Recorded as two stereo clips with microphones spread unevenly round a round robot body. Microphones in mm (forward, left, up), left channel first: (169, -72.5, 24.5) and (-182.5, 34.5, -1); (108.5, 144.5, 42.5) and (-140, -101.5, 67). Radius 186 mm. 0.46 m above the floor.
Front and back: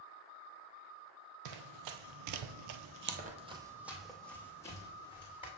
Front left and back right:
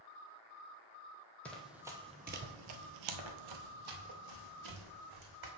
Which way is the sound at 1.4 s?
135° left.